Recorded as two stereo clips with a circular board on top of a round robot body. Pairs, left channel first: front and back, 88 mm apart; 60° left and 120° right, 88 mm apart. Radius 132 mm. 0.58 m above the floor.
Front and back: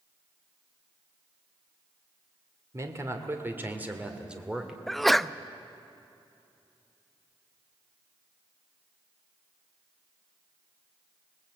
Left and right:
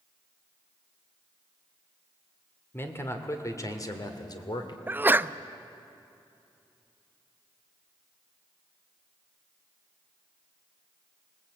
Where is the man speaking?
125° left, 2 m; by 4.8 s 95° left, 2.5 m.